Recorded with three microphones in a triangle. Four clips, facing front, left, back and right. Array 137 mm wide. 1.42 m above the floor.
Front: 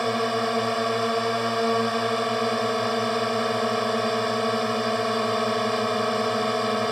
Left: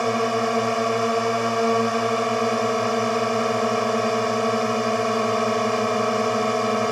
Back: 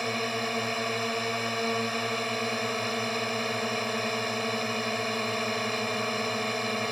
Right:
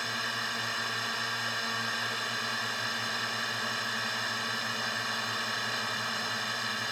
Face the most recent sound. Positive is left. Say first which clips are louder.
# left 15 dB, front 7 dB
turn(degrees=65)